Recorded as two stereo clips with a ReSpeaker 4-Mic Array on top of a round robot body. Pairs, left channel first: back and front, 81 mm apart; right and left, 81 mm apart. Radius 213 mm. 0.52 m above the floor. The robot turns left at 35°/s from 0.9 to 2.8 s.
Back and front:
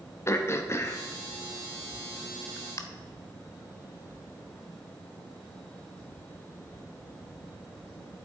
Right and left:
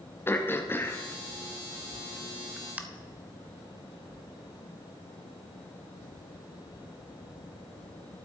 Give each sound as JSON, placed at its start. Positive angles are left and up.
{"t": 0.3, "sound": "throat clearing", "azimuth_deg": -140, "distance_m": 1.2}